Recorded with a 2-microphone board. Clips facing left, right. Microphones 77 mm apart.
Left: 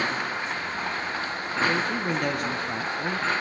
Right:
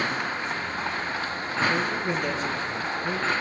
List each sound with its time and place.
1.7 s a man speaking: 65° left (ahead or behind), 3 m